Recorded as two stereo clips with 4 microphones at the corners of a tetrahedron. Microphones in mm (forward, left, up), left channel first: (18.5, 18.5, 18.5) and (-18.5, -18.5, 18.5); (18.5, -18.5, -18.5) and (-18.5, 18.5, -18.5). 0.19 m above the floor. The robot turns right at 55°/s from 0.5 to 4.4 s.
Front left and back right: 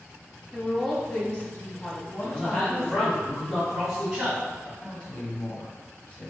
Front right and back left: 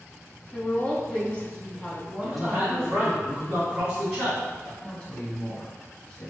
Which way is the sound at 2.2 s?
50° left.